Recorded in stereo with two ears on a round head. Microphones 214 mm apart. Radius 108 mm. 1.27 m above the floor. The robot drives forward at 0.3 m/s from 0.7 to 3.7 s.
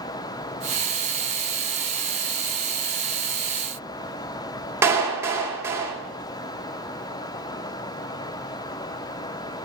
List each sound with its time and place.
4.8 s a clap: 10° right (ahead or behind), 2 m